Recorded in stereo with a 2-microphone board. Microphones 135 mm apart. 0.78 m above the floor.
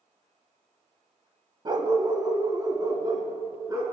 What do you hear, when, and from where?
1.6 s a dog barking: 35° right (ahead or behind), 0.9 m; by 3.8 s 25° right (ahead or behind), 2.5 m